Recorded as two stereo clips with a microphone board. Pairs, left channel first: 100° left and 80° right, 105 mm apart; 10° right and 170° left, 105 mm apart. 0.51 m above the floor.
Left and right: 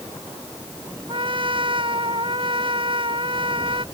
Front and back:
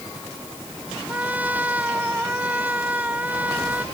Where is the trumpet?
115° right.